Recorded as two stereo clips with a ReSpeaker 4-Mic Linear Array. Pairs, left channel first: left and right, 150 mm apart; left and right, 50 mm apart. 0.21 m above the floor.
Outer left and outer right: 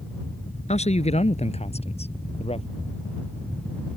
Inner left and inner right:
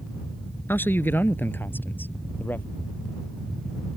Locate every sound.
0.7 s a man speaking: 45° left (ahead or behind); by 2.7 s 40° left (ahead or behind)